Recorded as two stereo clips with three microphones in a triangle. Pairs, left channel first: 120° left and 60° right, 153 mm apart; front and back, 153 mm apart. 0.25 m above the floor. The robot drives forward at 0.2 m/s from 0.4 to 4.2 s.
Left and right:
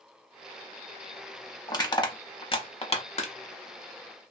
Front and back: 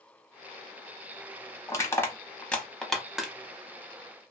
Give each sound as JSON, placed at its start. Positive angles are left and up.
{"t": 1.7, "sound": "crushing", "azimuth_deg": 65, "distance_m": 0.7}